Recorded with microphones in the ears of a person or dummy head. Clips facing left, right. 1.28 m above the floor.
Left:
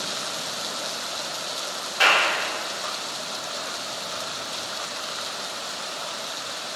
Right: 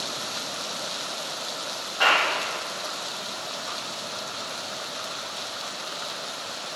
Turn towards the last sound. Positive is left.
turn(degrees=40)  # may be behind; listen again after turning